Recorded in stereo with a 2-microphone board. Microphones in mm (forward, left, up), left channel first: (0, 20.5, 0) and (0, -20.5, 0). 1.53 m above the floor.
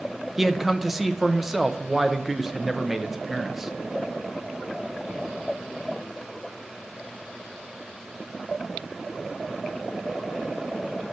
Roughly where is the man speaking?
Centre.